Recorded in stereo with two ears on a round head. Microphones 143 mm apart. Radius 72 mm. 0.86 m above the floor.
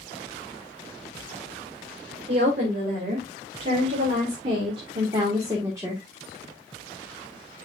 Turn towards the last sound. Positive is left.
turn(degrees=-15)  # may be behind; listen again after turning